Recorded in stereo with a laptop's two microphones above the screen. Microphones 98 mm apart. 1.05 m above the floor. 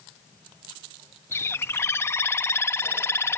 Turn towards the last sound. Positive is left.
turn(degrees=25)  # may be behind; listen again after turning